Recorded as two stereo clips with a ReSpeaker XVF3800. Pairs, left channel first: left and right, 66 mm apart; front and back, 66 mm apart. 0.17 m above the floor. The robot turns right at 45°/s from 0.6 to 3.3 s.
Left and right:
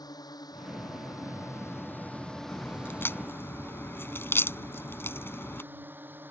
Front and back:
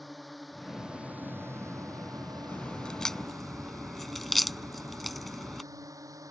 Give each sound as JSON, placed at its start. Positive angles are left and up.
{"t": 0.0, "sound": "a drone", "azimuth_deg": 90}
{"t": 2.5, "sound": "a crack", "azimuth_deg": 50}